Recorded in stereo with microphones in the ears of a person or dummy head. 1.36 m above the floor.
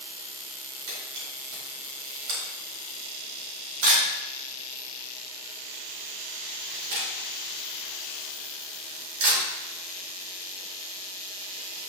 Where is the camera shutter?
55° right (ahead or behind), 4.5 m.